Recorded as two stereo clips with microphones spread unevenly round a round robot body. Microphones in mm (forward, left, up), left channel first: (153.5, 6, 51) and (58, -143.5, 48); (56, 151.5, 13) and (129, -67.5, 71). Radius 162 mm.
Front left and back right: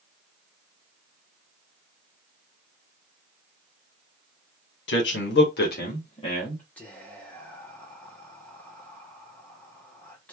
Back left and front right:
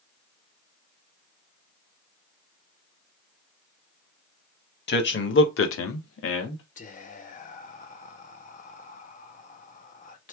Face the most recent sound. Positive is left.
turn(degrees=140)